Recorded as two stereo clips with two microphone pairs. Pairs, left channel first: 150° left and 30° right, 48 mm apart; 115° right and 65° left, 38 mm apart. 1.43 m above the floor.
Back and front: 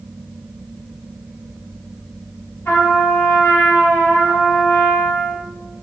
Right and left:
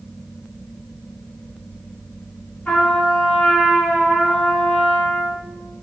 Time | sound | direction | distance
2.6 | a trumpet | 165° right | 1.3 m